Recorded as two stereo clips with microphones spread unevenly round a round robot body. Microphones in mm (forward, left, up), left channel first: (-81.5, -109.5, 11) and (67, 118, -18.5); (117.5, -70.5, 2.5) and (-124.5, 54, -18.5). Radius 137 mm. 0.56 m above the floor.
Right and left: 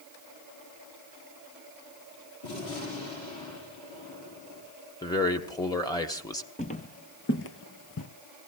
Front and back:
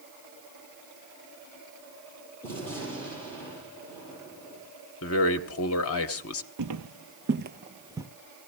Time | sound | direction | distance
2.4 | a gunshot | 110° right | 8.5 m
5.0 | a man speaking | 45° right | 1.1 m
6.6 | footsteps | 175° left | 1.0 m